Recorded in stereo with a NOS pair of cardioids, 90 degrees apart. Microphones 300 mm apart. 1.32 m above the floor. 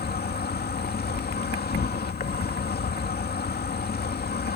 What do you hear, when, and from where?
0.0 s an insect: 30° left